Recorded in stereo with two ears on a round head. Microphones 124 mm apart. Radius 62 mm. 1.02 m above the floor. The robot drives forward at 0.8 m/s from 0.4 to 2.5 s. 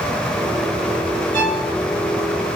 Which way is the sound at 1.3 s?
65° right (ahead or behind).